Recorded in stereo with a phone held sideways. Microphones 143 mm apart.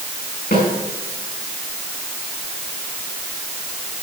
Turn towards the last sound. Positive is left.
turn(degrees=70)  # may be behind; listen again after turning